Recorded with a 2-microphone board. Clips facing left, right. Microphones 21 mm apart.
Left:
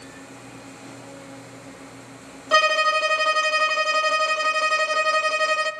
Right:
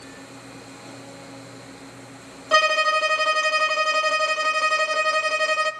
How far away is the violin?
About 0.8 m.